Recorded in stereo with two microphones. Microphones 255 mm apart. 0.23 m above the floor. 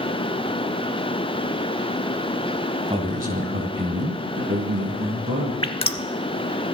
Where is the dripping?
20° left (ahead or behind), 0.7 m.